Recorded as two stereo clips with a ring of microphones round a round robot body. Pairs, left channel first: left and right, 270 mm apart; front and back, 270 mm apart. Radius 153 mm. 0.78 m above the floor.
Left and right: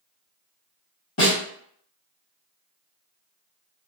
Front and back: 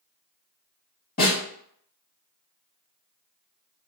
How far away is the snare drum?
About 1.7 m.